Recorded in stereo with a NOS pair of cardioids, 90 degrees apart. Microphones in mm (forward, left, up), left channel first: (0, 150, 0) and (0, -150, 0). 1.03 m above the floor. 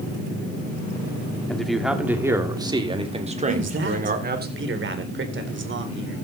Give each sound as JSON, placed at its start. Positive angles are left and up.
{"t": 1.5, "sound": "a man speaking", "azimuth_deg": 5, "distance_m": 3.0}
{"t": 3.5, "sound": "a man speaking", "azimuth_deg": -40, "distance_m": 4.0}